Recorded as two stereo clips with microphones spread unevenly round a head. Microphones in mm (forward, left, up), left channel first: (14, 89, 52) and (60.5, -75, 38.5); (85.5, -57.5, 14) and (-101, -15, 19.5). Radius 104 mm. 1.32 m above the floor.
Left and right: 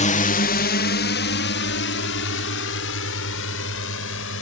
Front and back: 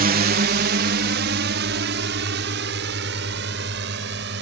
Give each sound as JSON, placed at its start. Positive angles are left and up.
{"t": 0.0, "sound": "a drone", "azimuth_deg": 145}